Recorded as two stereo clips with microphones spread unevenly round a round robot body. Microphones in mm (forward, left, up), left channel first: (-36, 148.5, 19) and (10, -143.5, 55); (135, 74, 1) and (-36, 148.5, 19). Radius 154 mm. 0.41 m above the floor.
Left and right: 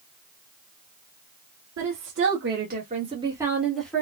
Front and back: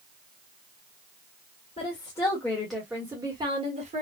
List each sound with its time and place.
1.8 s a woman speaking: 70° right, 1.6 m; by 4.0 s 165° left, 1.4 m